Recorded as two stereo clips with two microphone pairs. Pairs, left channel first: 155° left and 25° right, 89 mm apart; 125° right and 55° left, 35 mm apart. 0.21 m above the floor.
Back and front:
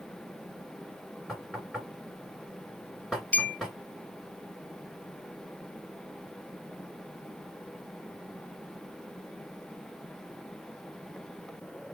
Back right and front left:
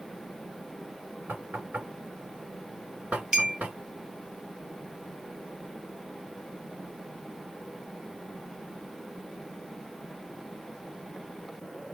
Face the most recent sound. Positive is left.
turn(degrees=105)